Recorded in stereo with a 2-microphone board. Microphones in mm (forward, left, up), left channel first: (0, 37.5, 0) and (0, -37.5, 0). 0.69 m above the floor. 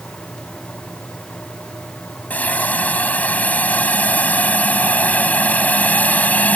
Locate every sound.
2.3 s a hiss: 20° left (ahead or behind)